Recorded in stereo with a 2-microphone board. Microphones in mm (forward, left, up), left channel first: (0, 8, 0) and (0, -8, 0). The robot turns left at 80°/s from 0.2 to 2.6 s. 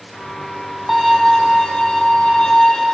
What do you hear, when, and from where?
0.9 s a violin: 170° right, 2.5 m; by 3.0 s 50° left, 2.5 m